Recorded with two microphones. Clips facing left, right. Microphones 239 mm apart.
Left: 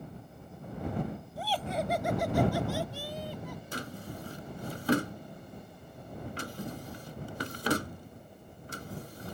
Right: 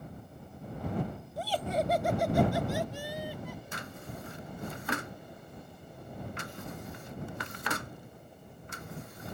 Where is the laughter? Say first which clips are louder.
Right 3 dB; 40° right (ahead or behind); by 3.6 s 10° right (ahead or behind).